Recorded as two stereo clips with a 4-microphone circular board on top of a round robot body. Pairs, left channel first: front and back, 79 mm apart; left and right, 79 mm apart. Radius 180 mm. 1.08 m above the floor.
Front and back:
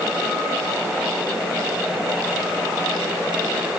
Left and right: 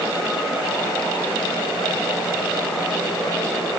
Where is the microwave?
I don't hear a microwave.